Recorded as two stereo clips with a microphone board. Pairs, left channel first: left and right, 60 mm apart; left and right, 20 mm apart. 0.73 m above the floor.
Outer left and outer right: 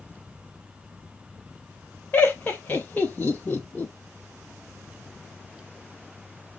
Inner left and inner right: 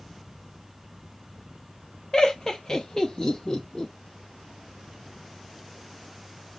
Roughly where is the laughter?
Left.